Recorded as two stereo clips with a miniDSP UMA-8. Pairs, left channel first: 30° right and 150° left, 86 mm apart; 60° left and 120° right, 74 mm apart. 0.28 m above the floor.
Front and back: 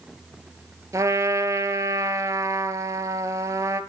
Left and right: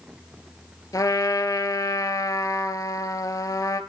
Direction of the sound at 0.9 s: 100° left.